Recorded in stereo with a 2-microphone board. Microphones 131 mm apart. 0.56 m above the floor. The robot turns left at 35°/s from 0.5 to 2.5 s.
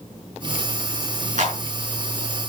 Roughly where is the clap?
Right.